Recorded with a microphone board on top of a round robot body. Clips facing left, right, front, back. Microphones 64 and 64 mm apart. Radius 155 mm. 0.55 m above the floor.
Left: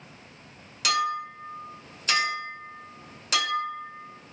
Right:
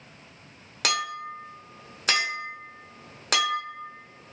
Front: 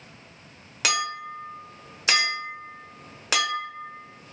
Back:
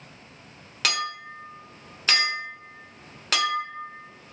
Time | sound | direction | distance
0.8 | a clink | 75° right | 1.1 m